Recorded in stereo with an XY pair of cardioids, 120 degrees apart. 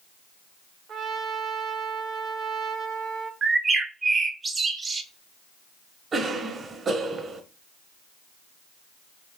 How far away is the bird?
About 0.6 m.